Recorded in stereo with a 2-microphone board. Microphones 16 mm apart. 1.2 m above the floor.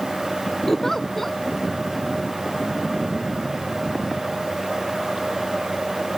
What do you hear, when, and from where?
0.7 s a giggle: 10° left (ahead or behind)